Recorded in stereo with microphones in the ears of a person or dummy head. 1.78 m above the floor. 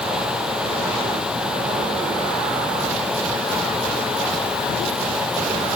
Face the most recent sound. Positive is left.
No sound to turn to.